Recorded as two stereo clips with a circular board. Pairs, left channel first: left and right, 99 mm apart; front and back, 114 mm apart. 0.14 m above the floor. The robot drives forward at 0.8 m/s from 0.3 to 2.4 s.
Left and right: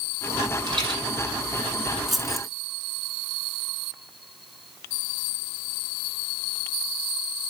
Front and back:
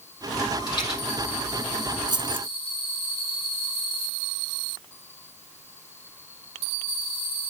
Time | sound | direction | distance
0.7 | a rattle | 50° right | 4 m
2.1 | keys jangling | straight behind | 0.9 m